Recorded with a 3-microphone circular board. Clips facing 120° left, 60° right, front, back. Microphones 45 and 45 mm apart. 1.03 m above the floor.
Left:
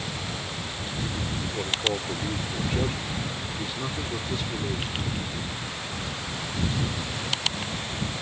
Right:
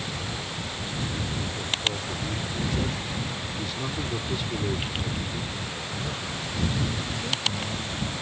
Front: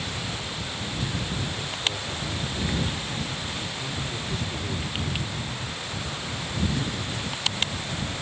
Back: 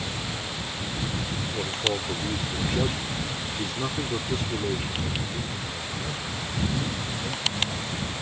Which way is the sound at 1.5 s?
140° left.